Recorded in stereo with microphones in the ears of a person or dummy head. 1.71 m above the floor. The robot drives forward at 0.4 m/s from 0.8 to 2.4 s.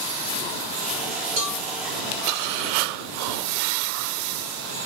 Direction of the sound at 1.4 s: 45° right (ahead or behind).